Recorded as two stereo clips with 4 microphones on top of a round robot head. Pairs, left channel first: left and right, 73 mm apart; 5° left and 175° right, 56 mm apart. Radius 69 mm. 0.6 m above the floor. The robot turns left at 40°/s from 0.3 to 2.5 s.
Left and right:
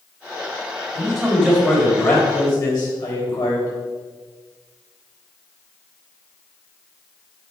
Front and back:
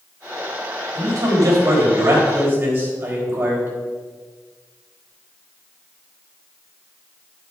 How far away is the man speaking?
About 4.5 m.